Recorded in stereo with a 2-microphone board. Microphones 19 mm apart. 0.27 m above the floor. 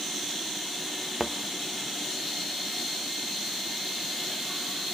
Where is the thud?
Centre (ahead or behind), 0.8 m.